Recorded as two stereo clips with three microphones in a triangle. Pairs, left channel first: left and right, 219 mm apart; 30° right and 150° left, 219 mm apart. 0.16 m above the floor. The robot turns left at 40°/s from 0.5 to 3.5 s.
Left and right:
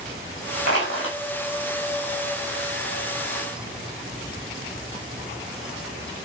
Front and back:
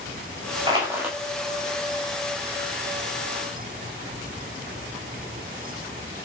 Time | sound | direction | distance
0.7 | crushing | 85° left | 6 m